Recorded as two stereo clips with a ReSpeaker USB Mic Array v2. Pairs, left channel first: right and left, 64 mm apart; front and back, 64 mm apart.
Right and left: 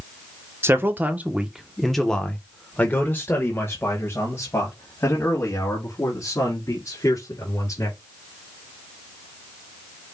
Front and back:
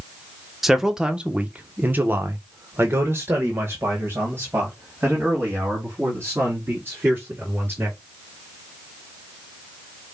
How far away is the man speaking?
About 0.9 m.